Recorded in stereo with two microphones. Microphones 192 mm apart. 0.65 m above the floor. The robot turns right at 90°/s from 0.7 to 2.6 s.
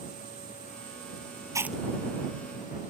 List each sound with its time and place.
1.6 s chewing: 20° right (ahead or behind); by 1.8 s centre (ahead or behind)